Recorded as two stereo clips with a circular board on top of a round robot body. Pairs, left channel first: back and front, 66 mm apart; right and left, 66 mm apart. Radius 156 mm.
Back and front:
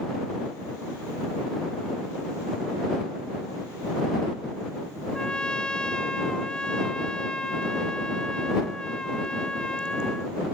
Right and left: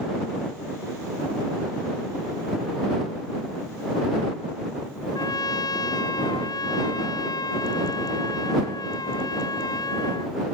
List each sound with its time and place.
5.1 s a trumpet: 100° right